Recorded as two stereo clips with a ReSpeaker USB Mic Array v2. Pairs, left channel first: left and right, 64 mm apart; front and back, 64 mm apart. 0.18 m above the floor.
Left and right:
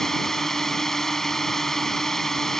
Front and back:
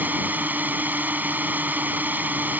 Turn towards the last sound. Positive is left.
turn(degrees=170)